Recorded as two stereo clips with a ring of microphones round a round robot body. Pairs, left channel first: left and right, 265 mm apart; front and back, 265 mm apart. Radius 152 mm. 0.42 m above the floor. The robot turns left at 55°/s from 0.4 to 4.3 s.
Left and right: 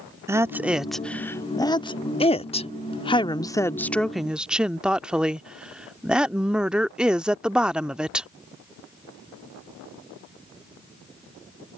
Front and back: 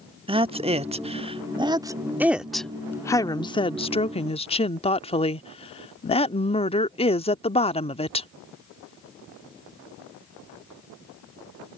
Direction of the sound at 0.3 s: 155° right.